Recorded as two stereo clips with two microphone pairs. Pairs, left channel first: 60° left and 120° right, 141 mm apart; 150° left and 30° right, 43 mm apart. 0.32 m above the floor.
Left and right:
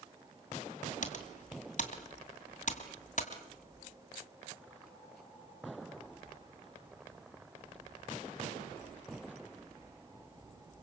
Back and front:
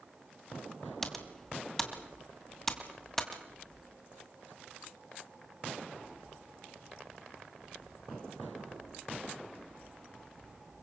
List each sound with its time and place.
1.0 s typing on a keyboard: 70° left, 2.5 m